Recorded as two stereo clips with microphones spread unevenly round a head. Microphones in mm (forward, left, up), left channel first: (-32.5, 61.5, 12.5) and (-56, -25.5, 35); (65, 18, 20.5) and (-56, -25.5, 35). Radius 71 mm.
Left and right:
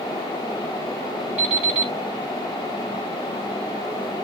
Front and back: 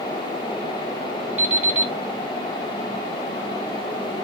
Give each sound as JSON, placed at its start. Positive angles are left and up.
{"t": 1.4, "sound": "an alarm clock", "azimuth_deg": -80, "distance_m": 1.4}